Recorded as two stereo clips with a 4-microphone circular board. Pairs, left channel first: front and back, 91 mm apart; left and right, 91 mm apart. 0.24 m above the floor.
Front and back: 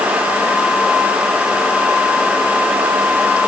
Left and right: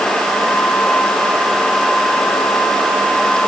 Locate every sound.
Only background noise.